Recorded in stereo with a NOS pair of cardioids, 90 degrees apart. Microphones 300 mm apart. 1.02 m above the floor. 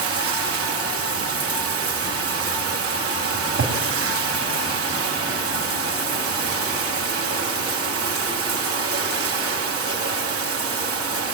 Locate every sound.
0.0 s running water: 50° right, 1.7 m
3.3 s a cupboard door: 45° right, 2.5 m